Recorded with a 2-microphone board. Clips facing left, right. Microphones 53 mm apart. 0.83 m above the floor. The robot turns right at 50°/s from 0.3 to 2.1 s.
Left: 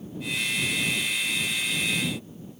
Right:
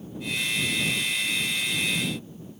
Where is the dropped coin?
I don't hear a dropped coin.